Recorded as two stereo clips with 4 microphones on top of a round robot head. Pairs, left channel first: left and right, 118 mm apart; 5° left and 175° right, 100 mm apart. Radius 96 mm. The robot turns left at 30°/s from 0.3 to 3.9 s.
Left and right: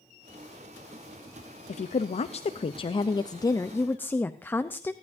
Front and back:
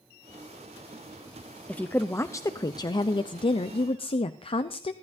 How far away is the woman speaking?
About 0.6 m.